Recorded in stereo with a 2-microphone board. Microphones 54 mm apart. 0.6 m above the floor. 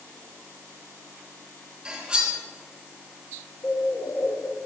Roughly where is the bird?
Left.